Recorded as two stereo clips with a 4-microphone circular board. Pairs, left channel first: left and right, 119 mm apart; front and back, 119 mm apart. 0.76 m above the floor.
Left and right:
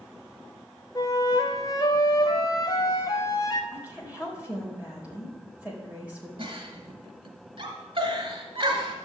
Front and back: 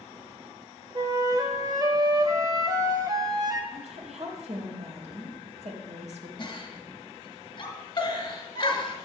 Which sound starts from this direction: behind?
A woman speaking, at 3.7 s.